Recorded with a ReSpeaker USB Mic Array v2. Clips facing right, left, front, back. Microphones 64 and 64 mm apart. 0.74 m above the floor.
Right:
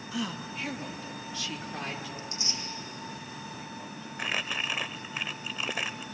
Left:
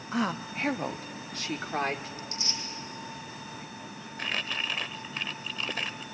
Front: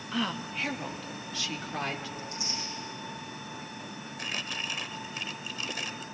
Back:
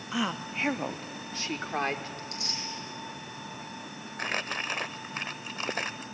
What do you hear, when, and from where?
0.1 s a woman speaking: 100° left, 0.7 m; by 2.1 s 130° left, 2.0 m
2.2 s tearing paper: 155° right, 5.5 m
4.2 s crumpling: 165° right, 0.6 m